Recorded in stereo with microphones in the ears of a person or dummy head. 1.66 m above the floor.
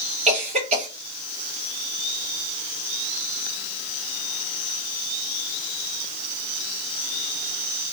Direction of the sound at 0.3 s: 35° right (ahead or behind).